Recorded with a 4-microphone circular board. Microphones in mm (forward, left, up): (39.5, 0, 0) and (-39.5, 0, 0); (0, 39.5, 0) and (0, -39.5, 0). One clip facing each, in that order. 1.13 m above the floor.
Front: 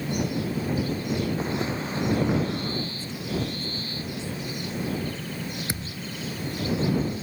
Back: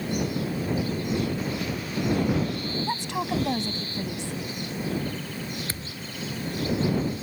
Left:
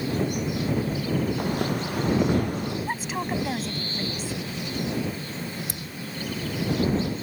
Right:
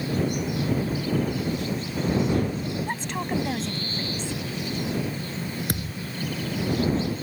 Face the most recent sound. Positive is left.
turn(degrees=-70)